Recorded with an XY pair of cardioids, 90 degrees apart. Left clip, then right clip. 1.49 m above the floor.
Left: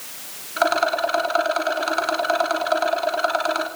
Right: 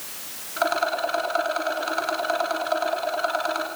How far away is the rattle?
About 3.5 m.